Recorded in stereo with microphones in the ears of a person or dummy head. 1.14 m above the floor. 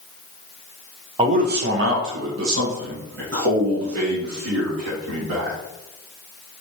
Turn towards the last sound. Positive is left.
turn(degrees=-60)  # may be behind; listen again after turning